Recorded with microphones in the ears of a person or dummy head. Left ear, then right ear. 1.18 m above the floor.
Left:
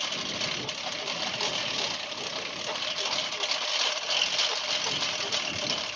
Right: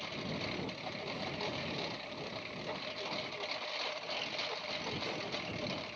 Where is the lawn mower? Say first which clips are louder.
Left 10 dB; 55° left (ahead or behind).